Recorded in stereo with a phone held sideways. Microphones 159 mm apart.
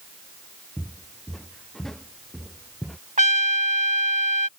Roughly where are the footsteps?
Centre.